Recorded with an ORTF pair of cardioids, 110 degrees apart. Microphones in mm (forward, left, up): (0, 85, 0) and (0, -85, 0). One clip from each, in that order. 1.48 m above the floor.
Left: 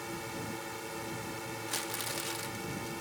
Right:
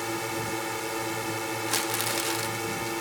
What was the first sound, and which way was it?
A drone, 50° right.